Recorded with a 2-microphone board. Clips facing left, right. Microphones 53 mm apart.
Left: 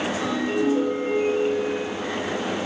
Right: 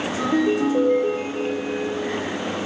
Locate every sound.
0.2 s a ringtone: 45° right (ahead or behind), 9.5 m